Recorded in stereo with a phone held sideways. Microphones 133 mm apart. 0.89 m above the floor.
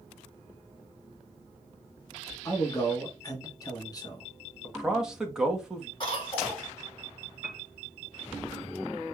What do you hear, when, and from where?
2.5 s a man speaking: 30° left (ahead or behind), 1.2 m
4.6 s a man speaking: 5° right (ahead or behind), 1.2 m
6.0 s a cough: 40° left (ahead or behind), 3 m
7.4 s a piano: 25° right (ahead or behind), 2 m